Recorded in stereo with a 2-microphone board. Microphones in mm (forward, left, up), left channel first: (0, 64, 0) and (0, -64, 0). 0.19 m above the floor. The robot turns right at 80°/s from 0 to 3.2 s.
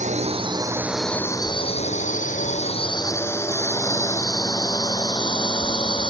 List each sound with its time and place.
0.0 s a drone: 75° right (ahead or behind); by 6.1 s 40° left (ahead or behind)